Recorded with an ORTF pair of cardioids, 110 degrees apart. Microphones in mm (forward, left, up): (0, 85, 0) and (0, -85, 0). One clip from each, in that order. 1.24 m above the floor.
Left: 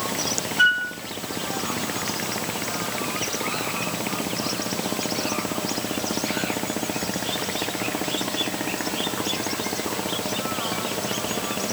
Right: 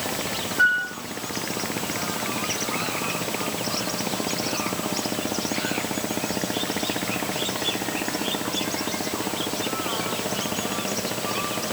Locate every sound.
0.6 s a flute: 25° left, 4 m